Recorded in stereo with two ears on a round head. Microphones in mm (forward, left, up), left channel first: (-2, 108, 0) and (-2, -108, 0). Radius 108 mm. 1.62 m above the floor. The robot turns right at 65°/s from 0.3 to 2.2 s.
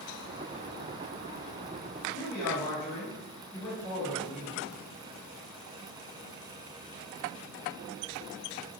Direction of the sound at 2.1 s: 50° left (ahead or behind).